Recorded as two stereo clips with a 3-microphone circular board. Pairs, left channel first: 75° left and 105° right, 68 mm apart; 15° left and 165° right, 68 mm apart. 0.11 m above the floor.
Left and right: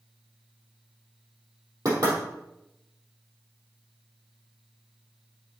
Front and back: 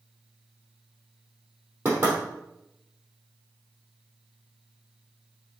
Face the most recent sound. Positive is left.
turn(degrees=-110)